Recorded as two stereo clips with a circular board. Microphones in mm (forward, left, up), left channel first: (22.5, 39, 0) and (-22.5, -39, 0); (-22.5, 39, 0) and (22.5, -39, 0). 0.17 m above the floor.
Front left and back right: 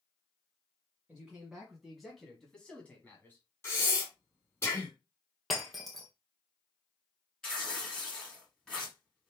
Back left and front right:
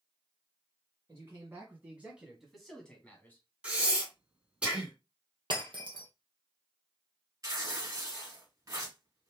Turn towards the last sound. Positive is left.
turn(degrees=-20)